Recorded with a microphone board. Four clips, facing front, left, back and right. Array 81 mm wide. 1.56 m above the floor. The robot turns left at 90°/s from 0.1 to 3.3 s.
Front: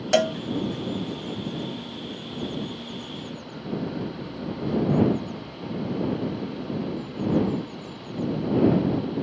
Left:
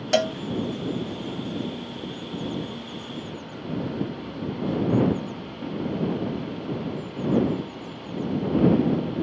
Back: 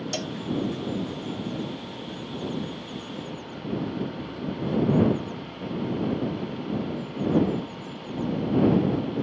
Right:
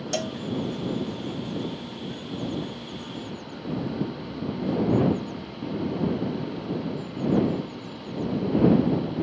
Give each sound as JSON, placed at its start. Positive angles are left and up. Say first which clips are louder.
{"t": 0.1, "sound": "a cowbell", "louder": "left 8 dB, front 11 dB", "azimuth_deg": 35}